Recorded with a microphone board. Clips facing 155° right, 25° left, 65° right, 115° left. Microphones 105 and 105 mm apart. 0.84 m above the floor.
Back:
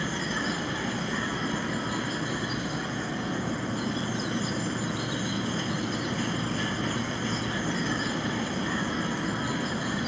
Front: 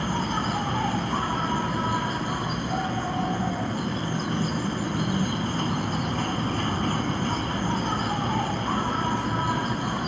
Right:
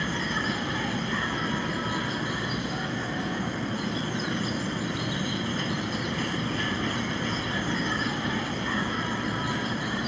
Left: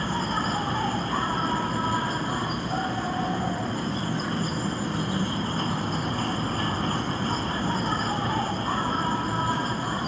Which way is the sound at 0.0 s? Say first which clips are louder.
Front 4 dB, left 3 dB; 60° left.